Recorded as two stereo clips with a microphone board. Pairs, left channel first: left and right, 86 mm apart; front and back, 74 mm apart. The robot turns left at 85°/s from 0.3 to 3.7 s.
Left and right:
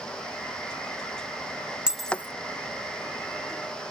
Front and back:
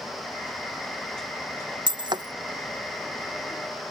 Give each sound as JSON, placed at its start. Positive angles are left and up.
{"t": 1.9, "sound": "breaking glass", "azimuth_deg": -170}